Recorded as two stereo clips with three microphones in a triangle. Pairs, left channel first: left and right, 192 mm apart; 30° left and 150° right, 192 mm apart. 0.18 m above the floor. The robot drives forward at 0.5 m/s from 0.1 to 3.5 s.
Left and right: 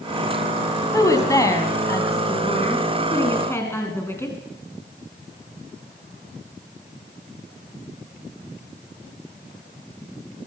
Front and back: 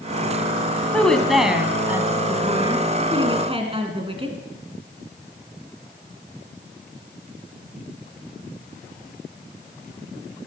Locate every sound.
0.9 s a woman speaking: 100° left, 1.4 m; by 4.4 s 160° left, 1.9 m